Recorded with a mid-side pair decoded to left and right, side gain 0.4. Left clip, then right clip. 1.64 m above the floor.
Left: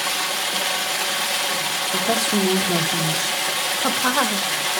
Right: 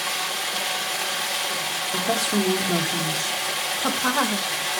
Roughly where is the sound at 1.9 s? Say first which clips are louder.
Left 2 dB; ahead left.